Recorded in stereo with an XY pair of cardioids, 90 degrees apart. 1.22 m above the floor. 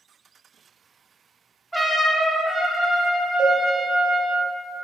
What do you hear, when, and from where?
1.7 s a trumpet: 5° right, 0.6 m
3.4 s a cowbell: 45° right, 0.8 m